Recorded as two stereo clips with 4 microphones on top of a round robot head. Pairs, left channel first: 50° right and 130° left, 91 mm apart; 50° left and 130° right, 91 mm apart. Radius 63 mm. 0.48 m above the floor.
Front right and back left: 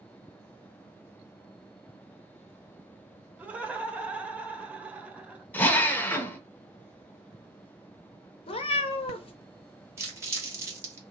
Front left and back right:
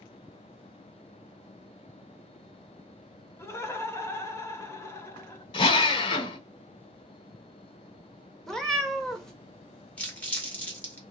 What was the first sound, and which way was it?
Laughter, 70° left.